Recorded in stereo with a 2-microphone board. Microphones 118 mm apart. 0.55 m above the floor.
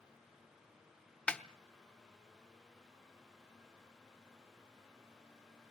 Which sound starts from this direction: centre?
A snare drum, at 1.3 s.